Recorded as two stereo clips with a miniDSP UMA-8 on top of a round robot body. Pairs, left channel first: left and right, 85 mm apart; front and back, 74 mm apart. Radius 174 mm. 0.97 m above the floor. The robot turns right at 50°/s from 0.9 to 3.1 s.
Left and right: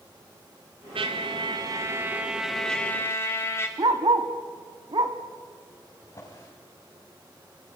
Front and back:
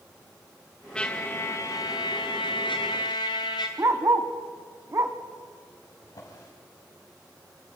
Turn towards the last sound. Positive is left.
turn(degrees=40)